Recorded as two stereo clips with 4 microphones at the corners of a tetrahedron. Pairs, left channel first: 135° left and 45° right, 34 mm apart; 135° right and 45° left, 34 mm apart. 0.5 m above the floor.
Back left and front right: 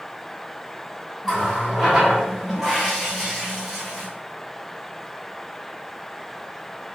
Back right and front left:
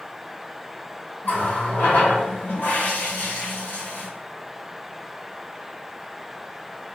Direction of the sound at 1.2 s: 125° right.